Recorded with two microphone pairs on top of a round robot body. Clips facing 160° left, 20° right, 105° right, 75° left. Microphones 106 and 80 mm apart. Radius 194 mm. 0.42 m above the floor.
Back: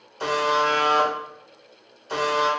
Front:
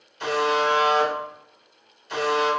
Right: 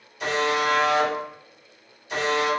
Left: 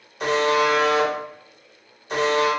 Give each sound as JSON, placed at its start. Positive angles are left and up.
{"t": 0.2, "sound": "a buzzer", "azimuth_deg": 120, "distance_m": 1.1}